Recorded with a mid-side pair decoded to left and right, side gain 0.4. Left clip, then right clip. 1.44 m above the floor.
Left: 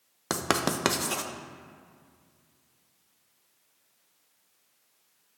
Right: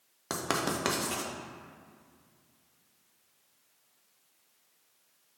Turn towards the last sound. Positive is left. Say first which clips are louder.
# left 4 dB
turn(degrees=45)